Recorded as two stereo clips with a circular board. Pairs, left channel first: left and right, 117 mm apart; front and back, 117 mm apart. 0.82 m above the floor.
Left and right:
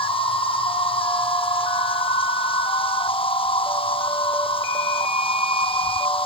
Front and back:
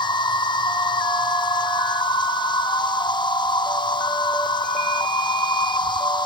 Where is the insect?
50° left, 0.8 m.